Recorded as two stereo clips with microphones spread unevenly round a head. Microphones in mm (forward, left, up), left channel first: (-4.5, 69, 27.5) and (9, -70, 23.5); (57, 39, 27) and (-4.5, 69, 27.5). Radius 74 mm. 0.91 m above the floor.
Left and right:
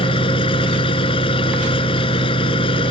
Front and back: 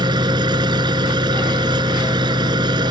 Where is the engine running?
150° left.